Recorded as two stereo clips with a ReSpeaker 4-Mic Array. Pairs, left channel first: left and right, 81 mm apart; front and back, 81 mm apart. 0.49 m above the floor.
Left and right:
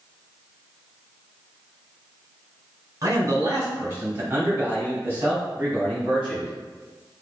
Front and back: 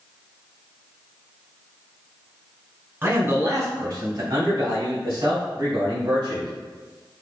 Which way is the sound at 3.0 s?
125° right.